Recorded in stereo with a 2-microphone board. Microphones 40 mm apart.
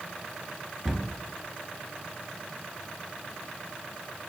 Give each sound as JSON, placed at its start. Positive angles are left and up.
{"t": 0.8, "sound": "a cupboard door", "side_deg": -10, "distance_m": 0.6}